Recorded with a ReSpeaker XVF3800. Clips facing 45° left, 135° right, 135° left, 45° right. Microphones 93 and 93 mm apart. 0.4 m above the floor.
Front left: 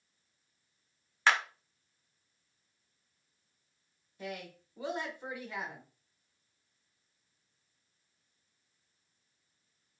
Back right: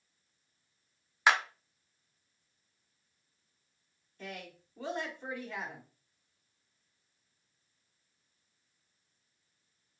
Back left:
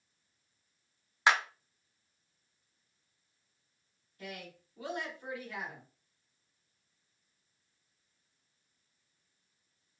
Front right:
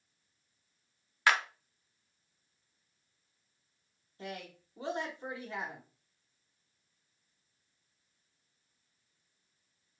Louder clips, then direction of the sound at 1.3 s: Back right 1 dB, back left 1 dB; 170° left.